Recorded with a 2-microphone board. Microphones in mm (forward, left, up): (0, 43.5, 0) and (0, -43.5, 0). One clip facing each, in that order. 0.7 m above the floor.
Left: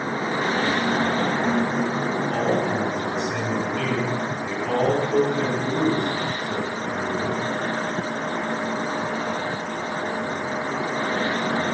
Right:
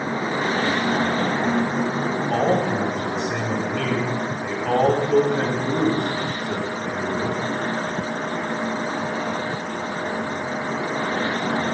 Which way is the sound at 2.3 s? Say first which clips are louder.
Right 4 dB; 65° right (ahead or behind).